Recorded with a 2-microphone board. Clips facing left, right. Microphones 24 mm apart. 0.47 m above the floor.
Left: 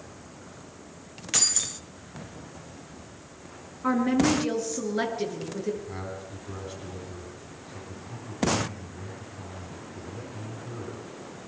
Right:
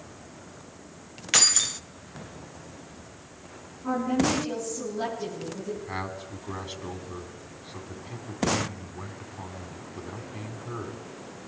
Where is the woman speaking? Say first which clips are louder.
Left 2 dB; 65° left (ahead or behind), 8.5 m.